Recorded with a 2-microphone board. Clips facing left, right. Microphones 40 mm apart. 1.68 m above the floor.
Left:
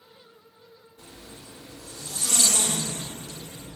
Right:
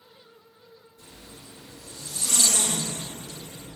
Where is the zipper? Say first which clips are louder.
Left 2 dB; 80° left, 2.5 m.